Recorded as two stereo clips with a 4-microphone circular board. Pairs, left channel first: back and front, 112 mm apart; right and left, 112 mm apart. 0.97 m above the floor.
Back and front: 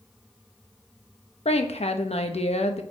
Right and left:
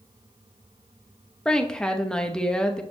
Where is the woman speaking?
170° right, 1.0 m.